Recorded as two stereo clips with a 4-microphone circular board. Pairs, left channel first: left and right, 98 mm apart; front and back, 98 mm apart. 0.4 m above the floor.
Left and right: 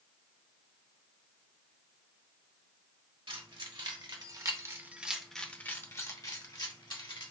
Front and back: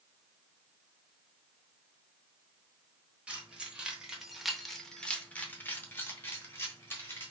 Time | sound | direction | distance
3.3 | keys jangling | 105° right | 1.2 m